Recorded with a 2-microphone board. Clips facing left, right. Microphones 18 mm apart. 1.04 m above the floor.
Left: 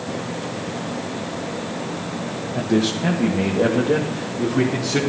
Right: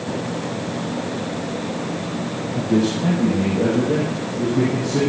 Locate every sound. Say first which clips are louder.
2.5 s a man speaking: right 1 dB; 20° left (ahead or behind), 1.0 m; by 5.0 s 50° left (ahead or behind), 3 m